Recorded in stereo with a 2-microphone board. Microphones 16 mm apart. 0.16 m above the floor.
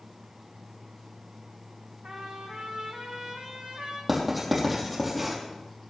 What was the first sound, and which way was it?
A trumpet, 75° right (ahead or behind).